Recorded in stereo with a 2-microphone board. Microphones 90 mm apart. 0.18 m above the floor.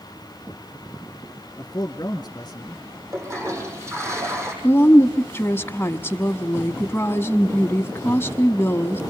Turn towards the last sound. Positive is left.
turn(degrees=25)  # may be behind; listen again after turning